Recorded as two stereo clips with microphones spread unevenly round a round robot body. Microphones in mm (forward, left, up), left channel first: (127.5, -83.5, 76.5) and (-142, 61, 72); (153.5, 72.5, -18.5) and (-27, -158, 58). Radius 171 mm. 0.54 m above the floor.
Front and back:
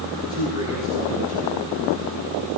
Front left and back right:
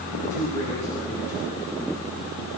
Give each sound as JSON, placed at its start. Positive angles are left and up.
{"t": 0.2, "sound": "a man speaking", "azimuth_deg": 80, "distance_m": 7.5}